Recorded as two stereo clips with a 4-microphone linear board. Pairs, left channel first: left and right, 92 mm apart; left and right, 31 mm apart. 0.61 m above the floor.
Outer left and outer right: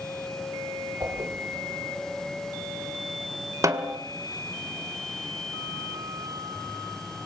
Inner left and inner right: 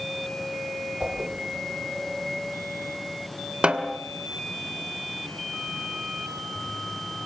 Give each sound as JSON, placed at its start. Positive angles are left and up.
{"t": 1.0, "sound": "a whoosh", "side_deg": -40, "distance_m": 7.5}
{"t": 3.6, "sound": "a snare drum", "side_deg": -35, "distance_m": 2.0}